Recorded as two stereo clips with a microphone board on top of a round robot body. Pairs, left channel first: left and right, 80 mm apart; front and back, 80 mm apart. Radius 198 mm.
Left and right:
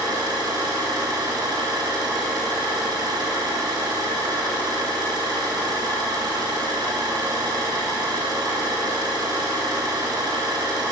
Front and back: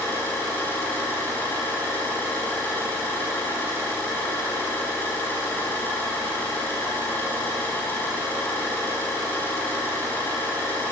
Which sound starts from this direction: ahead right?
An engine running, at 0.0 s.